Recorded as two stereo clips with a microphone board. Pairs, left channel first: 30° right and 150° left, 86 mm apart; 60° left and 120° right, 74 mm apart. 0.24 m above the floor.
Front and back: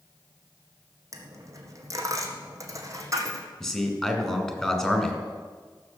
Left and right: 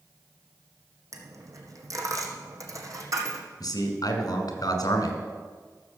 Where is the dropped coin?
160° right, 1.9 m.